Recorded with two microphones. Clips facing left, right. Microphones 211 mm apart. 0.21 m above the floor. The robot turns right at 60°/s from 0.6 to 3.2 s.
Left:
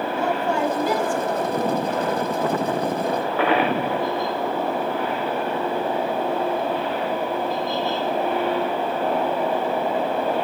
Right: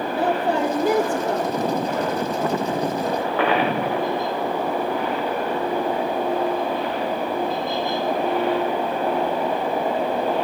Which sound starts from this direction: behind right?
A woman speaking, at 0.1 s.